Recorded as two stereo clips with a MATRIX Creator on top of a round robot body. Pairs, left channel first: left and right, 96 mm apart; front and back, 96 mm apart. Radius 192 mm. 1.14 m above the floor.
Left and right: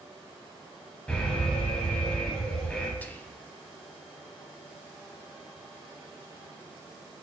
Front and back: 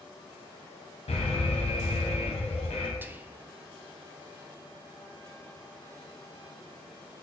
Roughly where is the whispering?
Behind left.